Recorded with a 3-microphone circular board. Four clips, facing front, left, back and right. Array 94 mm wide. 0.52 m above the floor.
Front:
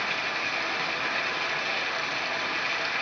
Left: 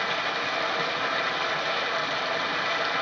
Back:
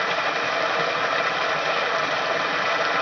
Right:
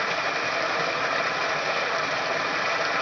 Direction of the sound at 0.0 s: 170° right.